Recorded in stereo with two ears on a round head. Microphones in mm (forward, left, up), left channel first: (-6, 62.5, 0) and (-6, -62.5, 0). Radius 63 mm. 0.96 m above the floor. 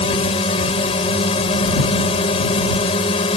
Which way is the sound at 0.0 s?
45° left (ahead or behind).